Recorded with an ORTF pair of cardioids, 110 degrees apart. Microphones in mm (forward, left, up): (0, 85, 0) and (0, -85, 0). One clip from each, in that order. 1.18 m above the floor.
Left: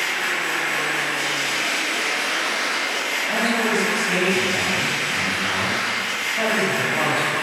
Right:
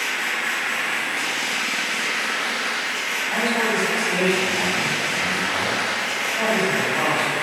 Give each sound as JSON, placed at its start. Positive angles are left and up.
{"t": 0.0, "sound": "a machine running", "azimuth_deg": 0, "distance_m": 1.0}
{"t": 3.3, "sound": "a man speaking", "azimuth_deg": 50, "distance_m": 1.9}